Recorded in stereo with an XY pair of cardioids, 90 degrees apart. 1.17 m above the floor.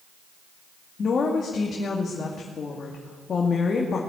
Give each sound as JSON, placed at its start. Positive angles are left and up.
{"t": 1.0, "sound": "a woman speaking", "azimuth_deg": 50, "distance_m": 2.5}